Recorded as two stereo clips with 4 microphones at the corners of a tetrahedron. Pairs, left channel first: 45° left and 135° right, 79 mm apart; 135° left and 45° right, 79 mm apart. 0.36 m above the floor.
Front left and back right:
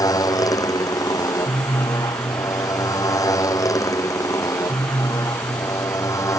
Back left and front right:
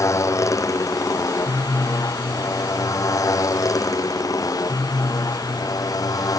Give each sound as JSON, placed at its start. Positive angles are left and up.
{"t": 0.0, "sound": "a motorcycle", "azimuth_deg": 85}